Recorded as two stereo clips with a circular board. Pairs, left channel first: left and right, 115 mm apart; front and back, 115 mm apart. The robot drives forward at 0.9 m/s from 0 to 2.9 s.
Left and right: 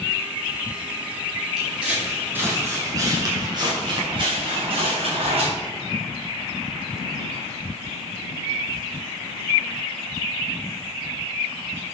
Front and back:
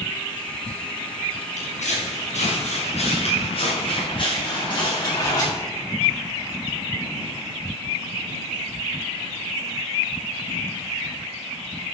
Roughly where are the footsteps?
Ahead.